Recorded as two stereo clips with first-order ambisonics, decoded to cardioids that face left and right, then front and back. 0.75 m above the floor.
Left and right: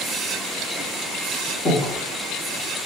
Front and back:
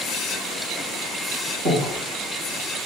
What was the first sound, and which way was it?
Breathing, 145° left.